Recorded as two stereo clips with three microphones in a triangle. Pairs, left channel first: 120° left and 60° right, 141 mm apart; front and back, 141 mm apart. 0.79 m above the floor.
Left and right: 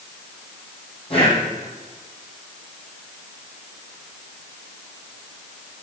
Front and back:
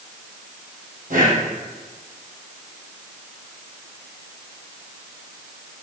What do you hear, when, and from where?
1.1 s breathing: 165° left, 6 m